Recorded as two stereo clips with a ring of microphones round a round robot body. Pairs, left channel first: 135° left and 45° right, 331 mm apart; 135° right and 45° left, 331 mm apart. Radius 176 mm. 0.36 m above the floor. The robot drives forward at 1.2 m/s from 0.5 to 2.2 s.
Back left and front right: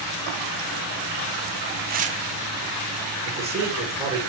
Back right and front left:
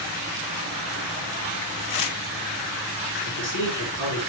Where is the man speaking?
130° right, 7 m.